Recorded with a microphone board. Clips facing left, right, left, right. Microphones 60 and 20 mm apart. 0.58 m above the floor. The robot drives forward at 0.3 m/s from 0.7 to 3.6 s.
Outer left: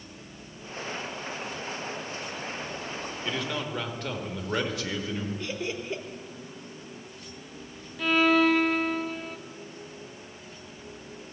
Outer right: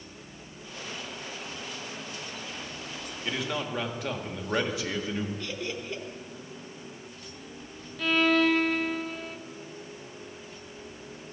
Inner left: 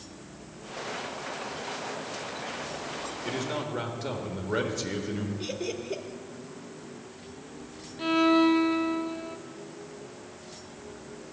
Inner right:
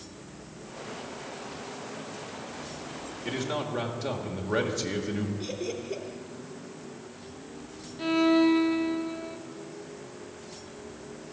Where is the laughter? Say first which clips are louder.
Outer left 2 dB, even; 20° left (ahead or behind), 0.8 m.